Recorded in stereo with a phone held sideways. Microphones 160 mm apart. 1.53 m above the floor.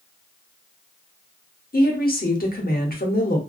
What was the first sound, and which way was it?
A woman speaking, 65° left (ahead or behind).